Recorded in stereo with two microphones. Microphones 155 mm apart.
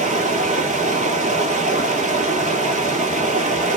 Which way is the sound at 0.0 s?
55° right (ahead or behind).